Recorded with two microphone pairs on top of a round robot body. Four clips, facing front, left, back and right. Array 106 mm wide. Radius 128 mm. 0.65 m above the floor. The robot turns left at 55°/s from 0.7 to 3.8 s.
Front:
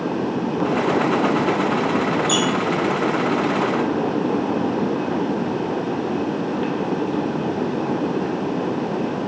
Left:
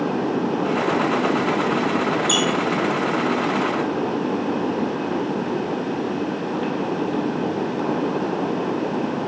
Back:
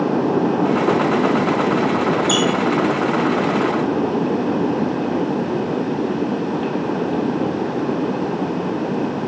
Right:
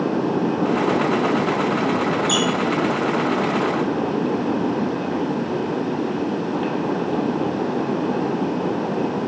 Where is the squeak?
160° left, 0.9 m; by 2.4 s 155° left, 0.9 m.